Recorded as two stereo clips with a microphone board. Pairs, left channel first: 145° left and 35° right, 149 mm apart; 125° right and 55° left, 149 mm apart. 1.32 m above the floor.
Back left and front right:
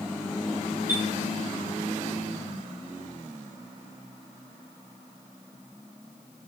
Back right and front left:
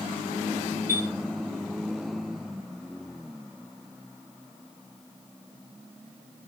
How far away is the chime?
About 6.5 m.